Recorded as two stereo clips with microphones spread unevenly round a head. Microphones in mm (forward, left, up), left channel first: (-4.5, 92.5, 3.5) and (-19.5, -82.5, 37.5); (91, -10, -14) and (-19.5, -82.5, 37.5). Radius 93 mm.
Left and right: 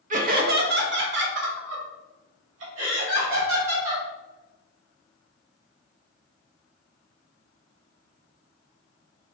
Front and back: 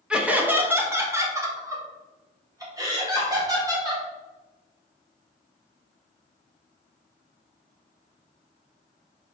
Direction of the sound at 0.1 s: 50° right.